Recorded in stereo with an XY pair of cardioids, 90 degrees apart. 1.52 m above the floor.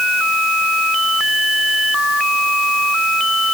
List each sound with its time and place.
Only background noise.